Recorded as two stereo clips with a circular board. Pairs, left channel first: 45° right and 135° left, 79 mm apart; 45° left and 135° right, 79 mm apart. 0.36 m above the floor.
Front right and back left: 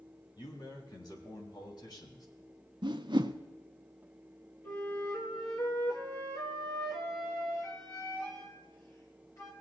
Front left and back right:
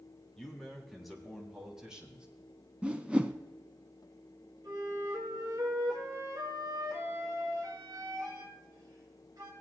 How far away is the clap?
I don't hear a clap.